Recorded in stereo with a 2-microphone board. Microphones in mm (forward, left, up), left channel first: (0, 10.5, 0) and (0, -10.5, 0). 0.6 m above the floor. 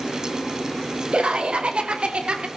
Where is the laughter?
65° right (ahead or behind), 2.5 m; by 2.5 s 60° right (ahead or behind), 1.9 m.